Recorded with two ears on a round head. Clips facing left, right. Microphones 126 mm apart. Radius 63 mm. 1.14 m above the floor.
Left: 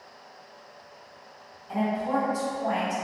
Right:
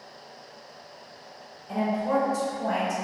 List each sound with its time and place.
1.7 s a woman speaking: 55° right (ahead or behind), 1.0 m